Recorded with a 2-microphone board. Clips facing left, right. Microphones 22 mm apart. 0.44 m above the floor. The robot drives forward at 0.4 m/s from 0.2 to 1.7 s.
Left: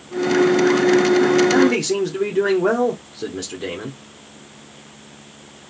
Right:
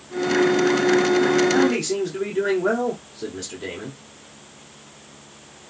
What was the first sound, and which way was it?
A man speaking, 15° left (ahead or behind).